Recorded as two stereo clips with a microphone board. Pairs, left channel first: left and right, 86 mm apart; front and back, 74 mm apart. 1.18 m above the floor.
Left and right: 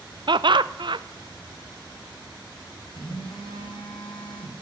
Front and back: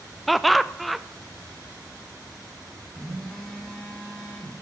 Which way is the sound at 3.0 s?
80° left.